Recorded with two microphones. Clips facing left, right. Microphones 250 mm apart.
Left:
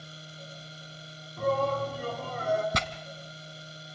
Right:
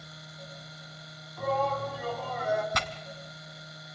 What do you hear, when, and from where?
1.4 s a shout: 40° left (ahead or behind), 4 m
2.7 s tearing paper: 35° left (ahead or behind), 1.0 m